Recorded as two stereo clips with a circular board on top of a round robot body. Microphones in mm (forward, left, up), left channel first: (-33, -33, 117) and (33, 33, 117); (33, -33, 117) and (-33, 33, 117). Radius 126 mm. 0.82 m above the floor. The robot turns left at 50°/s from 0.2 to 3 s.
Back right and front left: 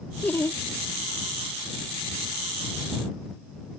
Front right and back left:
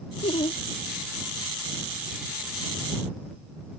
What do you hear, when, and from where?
0.2 s laughter: 60° right; by 0.6 s 80° right